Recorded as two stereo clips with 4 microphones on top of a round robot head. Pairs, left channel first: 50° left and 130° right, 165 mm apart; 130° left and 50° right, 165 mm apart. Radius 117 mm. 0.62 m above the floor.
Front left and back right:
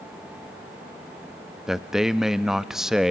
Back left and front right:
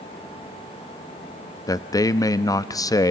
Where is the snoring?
I don't hear snoring.